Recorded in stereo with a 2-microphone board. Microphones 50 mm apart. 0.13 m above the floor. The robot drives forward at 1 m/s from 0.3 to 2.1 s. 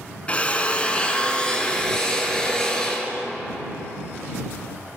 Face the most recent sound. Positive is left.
turn(degrees=15)  # may be behind; listen again after turning